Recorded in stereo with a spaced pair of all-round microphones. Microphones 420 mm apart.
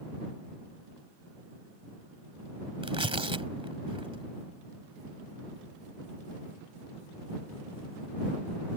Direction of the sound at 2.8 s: 10° right (ahead or behind).